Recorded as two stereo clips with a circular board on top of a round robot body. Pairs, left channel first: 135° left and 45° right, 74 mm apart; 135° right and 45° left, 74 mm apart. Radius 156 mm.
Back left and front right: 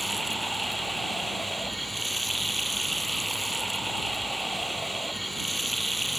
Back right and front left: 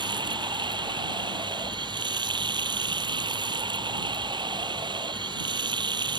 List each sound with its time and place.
0.0 s running water: 45° left